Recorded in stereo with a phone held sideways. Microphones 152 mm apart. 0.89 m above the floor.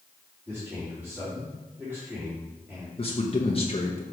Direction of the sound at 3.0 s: 40° left (ahead or behind).